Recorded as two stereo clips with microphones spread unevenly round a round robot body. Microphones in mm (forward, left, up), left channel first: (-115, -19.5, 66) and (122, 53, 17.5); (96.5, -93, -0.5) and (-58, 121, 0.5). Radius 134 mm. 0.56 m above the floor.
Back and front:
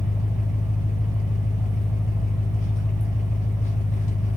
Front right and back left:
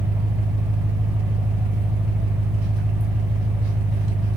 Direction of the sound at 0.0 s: 135° left.